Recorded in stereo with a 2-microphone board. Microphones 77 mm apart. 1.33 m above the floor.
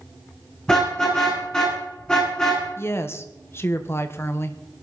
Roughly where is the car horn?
Centre.